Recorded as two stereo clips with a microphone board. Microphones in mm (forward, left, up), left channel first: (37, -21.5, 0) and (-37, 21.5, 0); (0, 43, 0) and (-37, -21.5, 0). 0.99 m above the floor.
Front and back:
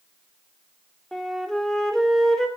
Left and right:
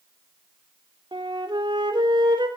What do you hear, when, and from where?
1.1 s a flute: 115° right, 3.5 m